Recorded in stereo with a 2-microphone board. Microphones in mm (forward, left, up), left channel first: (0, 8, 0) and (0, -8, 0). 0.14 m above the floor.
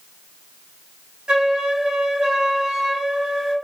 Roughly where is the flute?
Right.